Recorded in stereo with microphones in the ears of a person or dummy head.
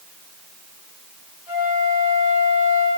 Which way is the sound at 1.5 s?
65° left (ahead or behind).